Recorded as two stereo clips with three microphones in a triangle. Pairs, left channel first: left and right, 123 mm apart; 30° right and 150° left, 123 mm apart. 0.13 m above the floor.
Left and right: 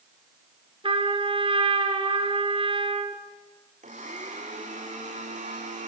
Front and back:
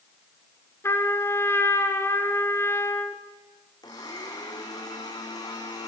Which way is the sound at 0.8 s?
90° right.